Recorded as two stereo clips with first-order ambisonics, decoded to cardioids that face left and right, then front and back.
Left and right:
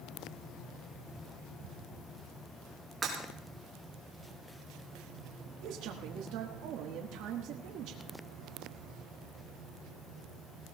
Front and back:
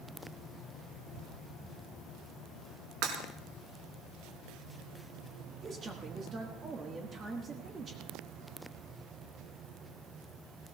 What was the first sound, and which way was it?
Breaking glass, 165° right.